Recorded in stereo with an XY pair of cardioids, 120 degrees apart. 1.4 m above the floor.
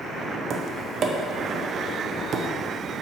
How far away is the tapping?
About 0.8 m.